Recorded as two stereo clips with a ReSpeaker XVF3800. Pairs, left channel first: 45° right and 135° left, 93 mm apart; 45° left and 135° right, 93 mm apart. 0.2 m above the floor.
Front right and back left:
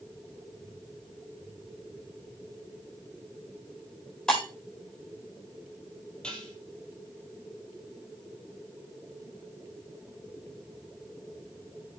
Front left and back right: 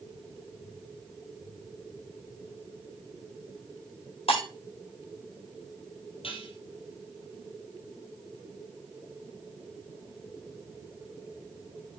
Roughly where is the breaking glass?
Ahead left.